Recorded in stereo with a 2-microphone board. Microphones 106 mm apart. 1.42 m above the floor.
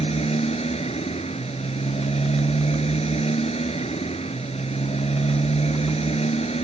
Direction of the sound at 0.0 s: 80° left.